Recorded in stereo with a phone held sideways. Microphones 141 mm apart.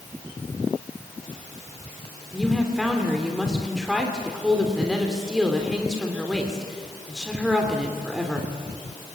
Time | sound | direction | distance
2.3 | a woman speaking | 5° right (ahead or behind) | 3 m